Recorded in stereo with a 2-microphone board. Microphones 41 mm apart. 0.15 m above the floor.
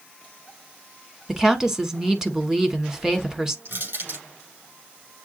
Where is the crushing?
70° right (ahead or behind), 5.5 m.